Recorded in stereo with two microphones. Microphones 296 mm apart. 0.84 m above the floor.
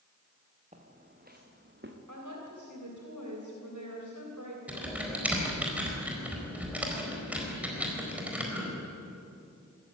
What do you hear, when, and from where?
0.7 s footsteps: 25° right (ahead or behind), 3.5 m; by 2.0 s 40° right (ahead or behind), 3 m
2.1 s a woman speaking: 80° right, 3 m
4.7 s typing on a keyboard: 5° right (ahead or behind), 4 m